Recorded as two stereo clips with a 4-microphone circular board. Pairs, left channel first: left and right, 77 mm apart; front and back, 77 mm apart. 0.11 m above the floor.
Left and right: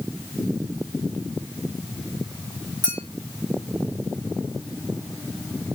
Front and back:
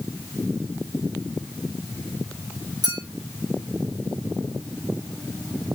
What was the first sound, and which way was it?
A clink, 160° left.